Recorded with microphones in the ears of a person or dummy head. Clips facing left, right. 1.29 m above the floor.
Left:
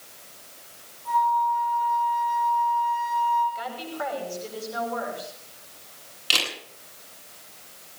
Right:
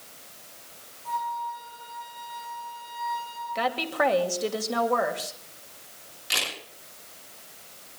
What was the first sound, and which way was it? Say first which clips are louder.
A flute: left 9 dB; 40° left (ahead or behind).